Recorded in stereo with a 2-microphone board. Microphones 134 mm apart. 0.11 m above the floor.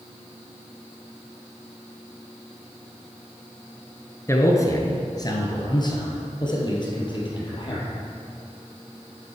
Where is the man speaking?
20° left (ahead or behind), 1.3 m; by 7.8 s 40° left (ahead or behind), 3 m.